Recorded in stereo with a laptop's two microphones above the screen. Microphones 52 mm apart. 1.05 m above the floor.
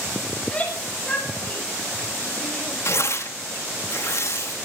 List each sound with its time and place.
0.4 s a shout: 25° left (ahead or behind), 5.5 m
2.9 s tearing paper: 65° left (ahead or behind), 1.9 m